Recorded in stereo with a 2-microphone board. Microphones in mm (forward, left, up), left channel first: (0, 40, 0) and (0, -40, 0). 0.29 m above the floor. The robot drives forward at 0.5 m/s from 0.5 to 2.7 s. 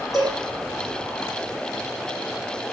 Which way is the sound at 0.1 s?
5° right (ahead or behind).